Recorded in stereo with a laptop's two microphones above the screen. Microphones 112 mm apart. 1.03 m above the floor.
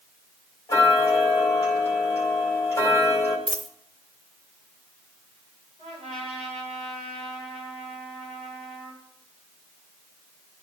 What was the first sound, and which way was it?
Ticking, 25° left (ahead or behind).